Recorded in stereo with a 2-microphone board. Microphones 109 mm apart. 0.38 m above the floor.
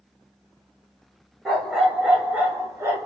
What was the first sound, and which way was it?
A dog barking, centre (ahead or behind).